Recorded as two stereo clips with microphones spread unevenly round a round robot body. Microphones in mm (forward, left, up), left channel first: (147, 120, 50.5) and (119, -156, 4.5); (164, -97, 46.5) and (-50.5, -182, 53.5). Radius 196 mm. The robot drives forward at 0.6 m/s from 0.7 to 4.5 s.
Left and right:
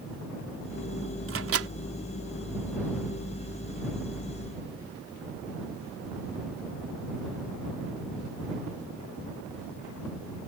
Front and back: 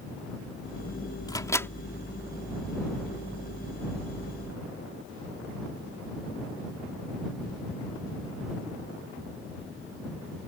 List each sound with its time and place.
1.3 s a microwave: 55° right; by 1.7 s 60° right